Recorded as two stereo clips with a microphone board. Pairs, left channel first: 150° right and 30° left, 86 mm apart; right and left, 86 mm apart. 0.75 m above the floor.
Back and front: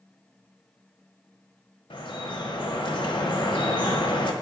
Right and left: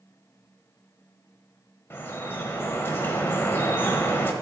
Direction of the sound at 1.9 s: 150° right.